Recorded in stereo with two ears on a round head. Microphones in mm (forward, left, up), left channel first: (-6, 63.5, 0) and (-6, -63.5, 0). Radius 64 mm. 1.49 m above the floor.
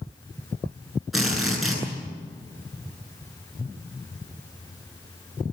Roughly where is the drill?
Centre.